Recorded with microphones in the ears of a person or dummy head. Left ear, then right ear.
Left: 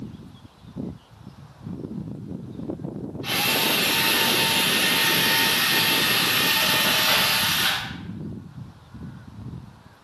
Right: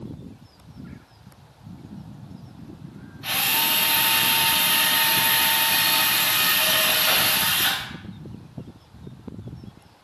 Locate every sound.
3.2 s a drill: 20° right (ahead or behind), 1.3 m